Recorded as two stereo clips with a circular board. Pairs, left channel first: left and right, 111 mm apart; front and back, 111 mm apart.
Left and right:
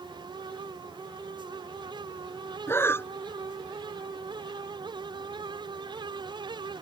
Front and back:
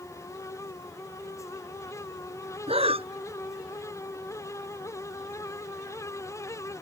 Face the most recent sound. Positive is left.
turn(degrees=155)